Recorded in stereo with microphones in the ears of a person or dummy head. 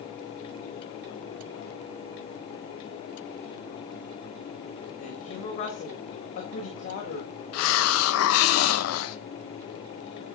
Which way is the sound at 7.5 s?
85° left.